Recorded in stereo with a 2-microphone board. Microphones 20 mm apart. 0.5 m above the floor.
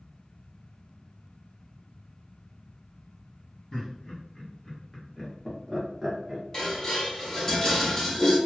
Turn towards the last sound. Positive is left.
turn(degrees=30)  # may be behind; listen again after turning